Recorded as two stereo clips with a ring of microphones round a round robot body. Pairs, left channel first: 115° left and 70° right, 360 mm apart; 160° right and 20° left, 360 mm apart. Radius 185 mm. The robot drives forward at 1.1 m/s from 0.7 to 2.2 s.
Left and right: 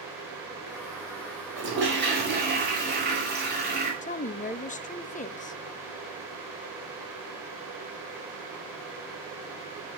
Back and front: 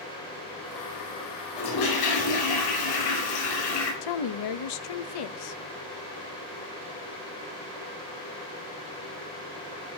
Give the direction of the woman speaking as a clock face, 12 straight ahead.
6 o'clock.